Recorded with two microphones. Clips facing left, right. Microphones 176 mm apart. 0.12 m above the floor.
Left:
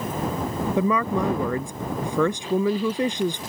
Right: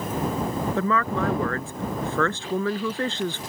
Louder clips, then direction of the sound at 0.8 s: Left 4 dB; 15° left (ahead or behind).